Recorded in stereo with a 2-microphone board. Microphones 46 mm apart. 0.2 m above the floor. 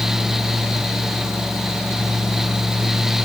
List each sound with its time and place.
Only background noise.